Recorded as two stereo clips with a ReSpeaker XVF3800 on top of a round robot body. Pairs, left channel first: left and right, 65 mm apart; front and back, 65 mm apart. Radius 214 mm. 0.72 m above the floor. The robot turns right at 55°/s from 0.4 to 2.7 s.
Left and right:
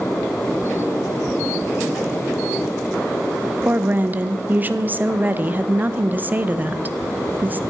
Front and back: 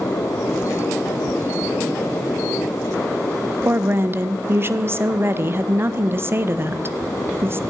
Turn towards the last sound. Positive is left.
turn(degrees=-140)